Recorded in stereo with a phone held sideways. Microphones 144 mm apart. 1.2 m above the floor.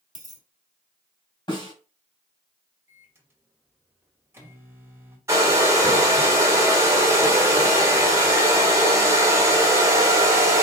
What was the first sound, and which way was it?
A dropped coin, 30° right (ahead or behind).